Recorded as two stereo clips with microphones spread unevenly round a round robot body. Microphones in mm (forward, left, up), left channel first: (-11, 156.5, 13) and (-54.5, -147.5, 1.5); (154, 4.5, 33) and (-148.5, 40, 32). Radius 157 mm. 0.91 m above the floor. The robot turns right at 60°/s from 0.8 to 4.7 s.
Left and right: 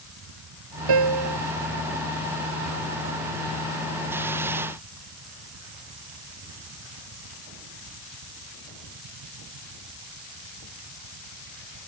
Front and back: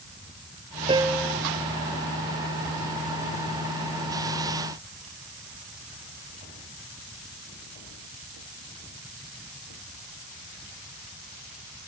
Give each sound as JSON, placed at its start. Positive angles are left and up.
{"t": 0.9, "sound": "a piano", "azimuth_deg": -110}